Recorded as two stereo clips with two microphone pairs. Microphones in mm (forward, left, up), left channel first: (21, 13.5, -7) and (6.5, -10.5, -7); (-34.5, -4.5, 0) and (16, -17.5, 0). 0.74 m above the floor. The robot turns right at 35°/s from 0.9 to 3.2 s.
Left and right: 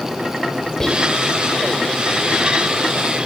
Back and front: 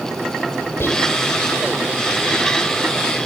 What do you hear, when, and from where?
0.8 s whispering: 125° left, 3.5 m; by 1.1 s 135° left, 3.5 m